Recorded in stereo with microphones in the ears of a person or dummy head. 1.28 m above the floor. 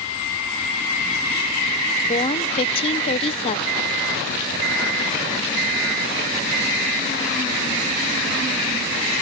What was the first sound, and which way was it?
A woman speaking, 35° left (ahead or behind).